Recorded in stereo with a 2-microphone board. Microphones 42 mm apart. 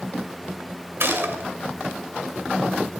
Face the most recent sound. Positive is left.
turn(degrees=-65)  # may be behind; listen again after turning